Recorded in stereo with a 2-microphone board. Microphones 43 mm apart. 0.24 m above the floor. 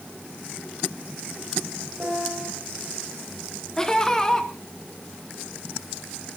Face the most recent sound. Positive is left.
turn(degrees=15)  # may be behind; listen again after turning